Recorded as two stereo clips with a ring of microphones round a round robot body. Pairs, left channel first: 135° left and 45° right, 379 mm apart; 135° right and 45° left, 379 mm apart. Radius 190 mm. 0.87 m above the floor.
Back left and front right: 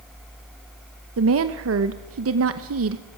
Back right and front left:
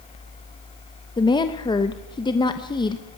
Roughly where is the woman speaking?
Ahead right.